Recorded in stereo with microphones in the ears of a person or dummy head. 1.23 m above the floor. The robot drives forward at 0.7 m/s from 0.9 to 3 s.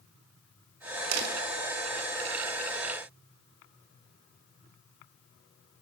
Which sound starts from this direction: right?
A door slam, at 1.1 s.